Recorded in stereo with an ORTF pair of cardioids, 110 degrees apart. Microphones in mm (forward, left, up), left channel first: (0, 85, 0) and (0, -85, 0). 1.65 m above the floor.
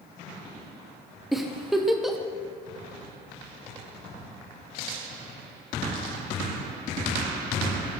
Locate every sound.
1.3 s a giggle: straight ahead, 1.3 m